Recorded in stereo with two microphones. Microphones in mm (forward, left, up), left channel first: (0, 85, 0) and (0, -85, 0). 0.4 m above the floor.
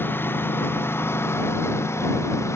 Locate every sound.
0.0 s a lawn mower: 10° left (ahead or behind); by 2.6 s 15° left (ahead or behind)